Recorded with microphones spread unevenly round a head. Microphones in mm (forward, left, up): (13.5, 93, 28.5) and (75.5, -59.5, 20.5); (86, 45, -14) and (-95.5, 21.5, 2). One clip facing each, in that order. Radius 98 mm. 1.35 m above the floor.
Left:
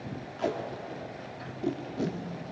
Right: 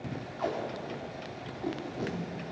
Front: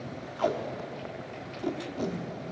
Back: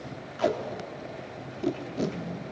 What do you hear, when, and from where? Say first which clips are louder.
0.4 s tape being pulled: left 2 dB, back 2 dB; 150° left, 1.0 m